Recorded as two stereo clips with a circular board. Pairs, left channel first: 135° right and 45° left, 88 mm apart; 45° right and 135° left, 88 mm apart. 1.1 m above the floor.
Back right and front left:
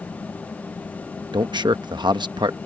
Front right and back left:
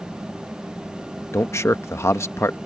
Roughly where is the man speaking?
Ahead.